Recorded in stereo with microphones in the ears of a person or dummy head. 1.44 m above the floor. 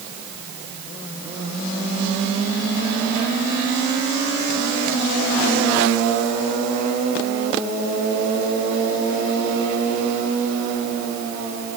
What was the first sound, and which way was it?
Only background noise.